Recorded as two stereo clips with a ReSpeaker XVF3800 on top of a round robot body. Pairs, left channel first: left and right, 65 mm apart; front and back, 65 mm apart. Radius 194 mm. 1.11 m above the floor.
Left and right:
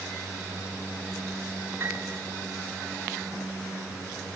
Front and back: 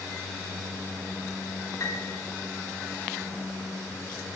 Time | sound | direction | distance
1.8 | a piano | 35° right | 5 m